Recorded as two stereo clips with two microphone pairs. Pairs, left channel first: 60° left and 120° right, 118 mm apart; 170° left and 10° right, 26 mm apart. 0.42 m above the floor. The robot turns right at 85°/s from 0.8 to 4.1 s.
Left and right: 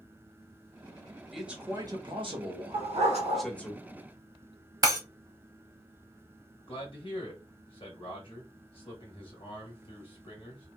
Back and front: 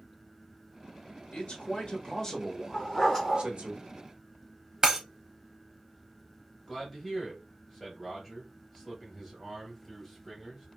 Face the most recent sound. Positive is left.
turn(degrees=80)